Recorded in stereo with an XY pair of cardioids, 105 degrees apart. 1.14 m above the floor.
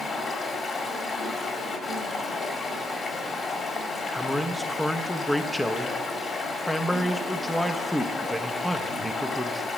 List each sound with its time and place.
0.0 s running water: 50° left, 2 m
4.1 s a man speaking: 10° left, 0.8 m